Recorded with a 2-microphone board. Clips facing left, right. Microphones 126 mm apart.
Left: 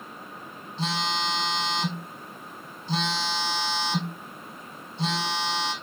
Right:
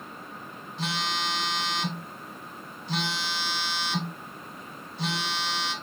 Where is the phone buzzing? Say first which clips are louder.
Left 2 dB; 30° left (ahead or behind), 1.3 m.